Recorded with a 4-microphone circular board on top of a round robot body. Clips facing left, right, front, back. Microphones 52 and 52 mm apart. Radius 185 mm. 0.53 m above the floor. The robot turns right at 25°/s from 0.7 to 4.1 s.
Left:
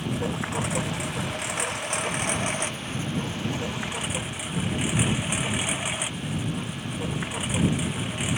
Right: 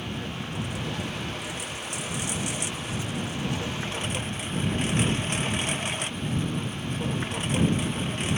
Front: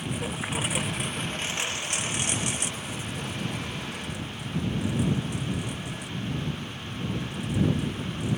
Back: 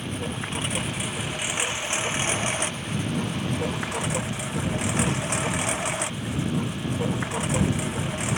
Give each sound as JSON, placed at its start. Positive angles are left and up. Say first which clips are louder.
{"t": 0.0, "sound": "a lawn mower", "louder": "left 5 dB, back 1 dB", "azimuth_deg": 85}